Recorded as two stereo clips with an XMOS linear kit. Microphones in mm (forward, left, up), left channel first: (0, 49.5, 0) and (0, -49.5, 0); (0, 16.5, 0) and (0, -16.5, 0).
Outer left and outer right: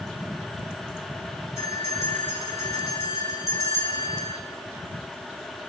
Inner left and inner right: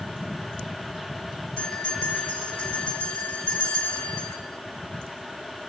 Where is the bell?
30° left (ahead or behind), 4 m.